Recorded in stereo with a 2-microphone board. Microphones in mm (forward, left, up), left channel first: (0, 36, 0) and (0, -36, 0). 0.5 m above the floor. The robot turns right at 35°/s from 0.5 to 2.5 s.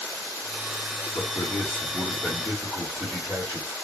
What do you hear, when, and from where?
1.1 s a man speaking: 120° left, 1.7 m; by 3.8 s 165° left, 1.7 m